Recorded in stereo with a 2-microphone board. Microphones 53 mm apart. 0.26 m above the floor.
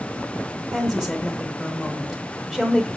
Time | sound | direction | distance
0.7 | a woman speaking | 5° right (ahead or behind) | 1.0 m